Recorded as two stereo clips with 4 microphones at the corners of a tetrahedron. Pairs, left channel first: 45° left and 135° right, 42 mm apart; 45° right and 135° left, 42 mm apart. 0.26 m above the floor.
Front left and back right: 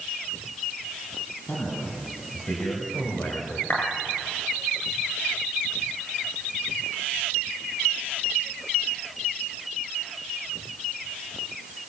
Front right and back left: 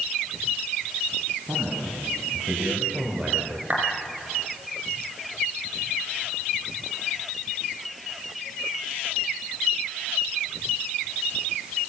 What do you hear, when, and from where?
1.5 s a man speaking: 75° left, 6.5 m; by 3.6 s 60° left, 4.5 m
3.7 s a clap: 80° left, 5 m